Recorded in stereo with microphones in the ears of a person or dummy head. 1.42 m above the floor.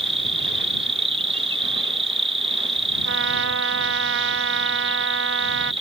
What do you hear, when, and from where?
0.0 s an insect: 30° right (ahead or behind)
3.0 s a trumpet: 70° right (ahead or behind)